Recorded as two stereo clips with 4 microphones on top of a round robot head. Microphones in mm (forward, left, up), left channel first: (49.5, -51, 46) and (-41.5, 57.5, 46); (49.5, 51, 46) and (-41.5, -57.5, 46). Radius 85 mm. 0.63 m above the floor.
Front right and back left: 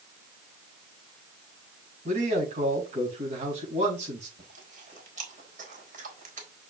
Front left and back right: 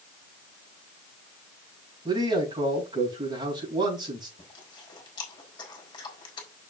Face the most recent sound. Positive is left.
turn(degrees=110)